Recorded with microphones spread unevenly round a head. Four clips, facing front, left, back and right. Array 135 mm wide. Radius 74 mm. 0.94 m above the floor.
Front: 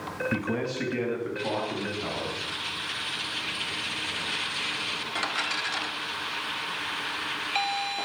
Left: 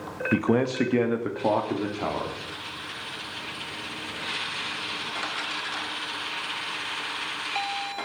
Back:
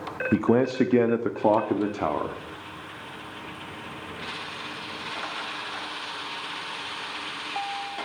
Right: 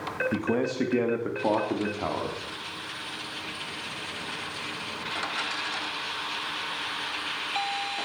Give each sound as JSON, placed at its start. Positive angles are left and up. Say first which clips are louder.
{"t": 0.3, "sound": "a man speaking", "louder": "left 6 dB, back 11 dB", "azimuth_deg": 155, "distance_m": 1.4}